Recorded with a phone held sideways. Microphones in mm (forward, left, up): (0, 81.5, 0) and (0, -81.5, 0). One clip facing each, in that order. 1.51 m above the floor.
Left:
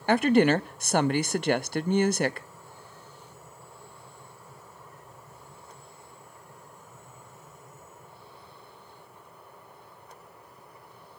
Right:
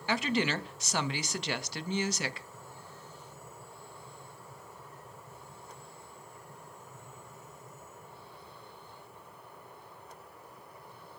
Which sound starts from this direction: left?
A woman speaking, at 0.1 s.